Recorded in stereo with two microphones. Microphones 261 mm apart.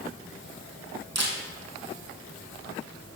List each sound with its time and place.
1.1 s a camera shutter: 75° right (ahead or behind), 1.9 m